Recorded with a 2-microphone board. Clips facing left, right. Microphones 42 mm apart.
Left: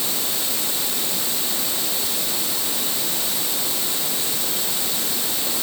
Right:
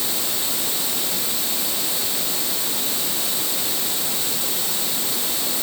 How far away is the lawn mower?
No lawn mower in this recording.